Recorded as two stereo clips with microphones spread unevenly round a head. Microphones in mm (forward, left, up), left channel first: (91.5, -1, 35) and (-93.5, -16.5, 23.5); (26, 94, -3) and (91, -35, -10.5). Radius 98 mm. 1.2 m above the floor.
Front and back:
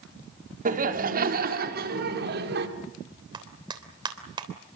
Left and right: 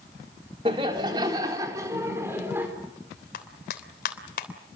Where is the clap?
115° left, 3 m.